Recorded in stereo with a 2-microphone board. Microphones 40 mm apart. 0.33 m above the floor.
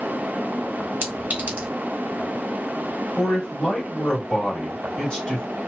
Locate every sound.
1.0 s a clink: 45° right (ahead or behind), 1.1 m
3.2 s a man speaking: 25° left (ahead or behind), 1.5 m